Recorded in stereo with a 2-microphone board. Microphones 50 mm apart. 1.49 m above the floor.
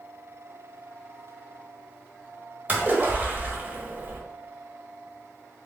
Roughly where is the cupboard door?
I don't hear a cupboard door.